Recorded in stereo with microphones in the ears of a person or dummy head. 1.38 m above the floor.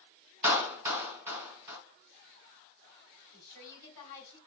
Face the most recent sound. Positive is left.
turn(degrees=20)  # may be behind; listen again after turning